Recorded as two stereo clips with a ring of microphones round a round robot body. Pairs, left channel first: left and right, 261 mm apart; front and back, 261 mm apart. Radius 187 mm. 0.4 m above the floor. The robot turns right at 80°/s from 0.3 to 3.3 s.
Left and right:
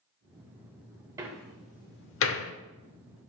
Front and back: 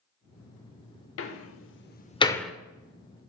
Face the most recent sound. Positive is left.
turn(degrees=155)